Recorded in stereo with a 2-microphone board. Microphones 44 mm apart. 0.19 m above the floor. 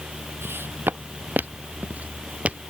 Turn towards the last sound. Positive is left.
turn(degrees=-30)  # may be behind; listen again after turning